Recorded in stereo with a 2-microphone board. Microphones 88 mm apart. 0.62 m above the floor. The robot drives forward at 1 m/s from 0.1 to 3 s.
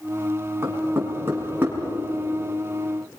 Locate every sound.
0.6 s knocking: 30° right (ahead or behind), 4.5 m; by 1.8 s 25° right (ahead or behind), 5.5 m